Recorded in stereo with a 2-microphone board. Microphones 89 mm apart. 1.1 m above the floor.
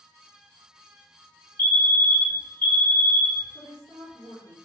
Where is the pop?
I don't hear a pop.